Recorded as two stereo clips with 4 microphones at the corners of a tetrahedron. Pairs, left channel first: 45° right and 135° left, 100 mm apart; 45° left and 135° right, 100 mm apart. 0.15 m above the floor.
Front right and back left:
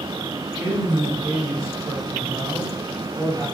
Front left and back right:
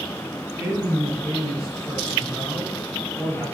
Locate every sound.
0.6 s a woman speaking: 160° left, 1.5 m